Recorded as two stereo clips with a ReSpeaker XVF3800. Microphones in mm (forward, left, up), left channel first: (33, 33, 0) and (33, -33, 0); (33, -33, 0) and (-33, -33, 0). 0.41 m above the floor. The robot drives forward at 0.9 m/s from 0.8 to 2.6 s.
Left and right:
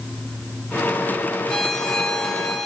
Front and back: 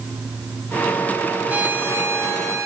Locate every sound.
1.5 s a violin: 160° left, 1.4 m; by 2.7 s 175° left, 2 m